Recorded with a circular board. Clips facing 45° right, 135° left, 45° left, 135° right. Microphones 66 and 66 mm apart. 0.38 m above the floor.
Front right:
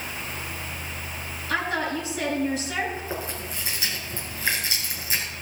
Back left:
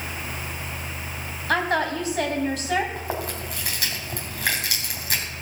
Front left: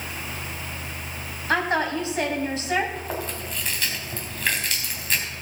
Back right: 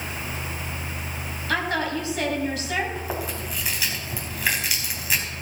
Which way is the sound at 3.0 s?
145° left.